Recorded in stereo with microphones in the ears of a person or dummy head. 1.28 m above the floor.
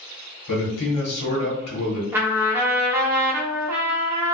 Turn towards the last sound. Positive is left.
turn(degrees=-15)  # may be behind; listen again after turning